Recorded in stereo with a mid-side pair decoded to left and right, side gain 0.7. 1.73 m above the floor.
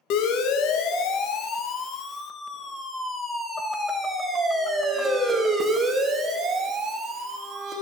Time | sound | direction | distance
0.1 | a siren | 60° left | 3 m